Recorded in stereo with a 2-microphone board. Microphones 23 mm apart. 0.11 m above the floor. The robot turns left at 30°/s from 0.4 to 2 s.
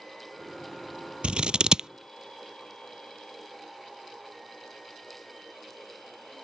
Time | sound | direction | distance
1.2 | scissors | 55° right (ahead or behind) | ?